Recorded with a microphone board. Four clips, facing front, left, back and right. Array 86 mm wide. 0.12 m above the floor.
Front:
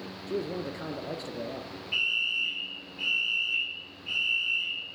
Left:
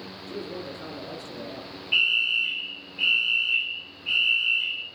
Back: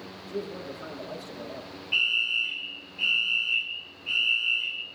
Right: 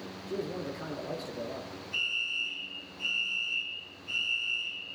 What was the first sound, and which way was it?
A man speaking, 10° right.